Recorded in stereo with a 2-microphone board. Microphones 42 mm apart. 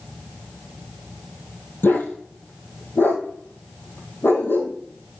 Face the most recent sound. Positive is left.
turn(degrees=55)  # may be behind; listen again after turning